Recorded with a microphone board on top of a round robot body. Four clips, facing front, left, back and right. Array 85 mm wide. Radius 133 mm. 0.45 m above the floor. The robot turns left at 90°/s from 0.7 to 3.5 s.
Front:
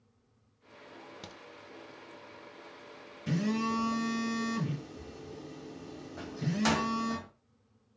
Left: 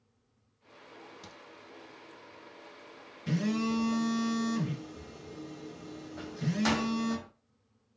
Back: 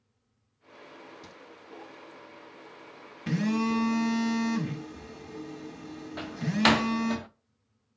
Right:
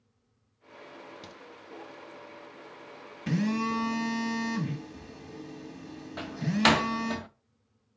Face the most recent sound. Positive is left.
turn(degrees=-135)